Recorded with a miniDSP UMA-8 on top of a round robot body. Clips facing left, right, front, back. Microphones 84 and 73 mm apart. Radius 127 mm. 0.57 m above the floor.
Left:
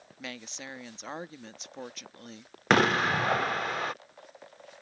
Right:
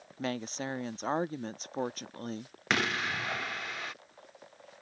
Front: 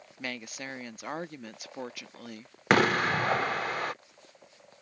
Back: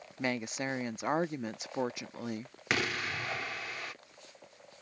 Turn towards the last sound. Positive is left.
turn(degrees=40)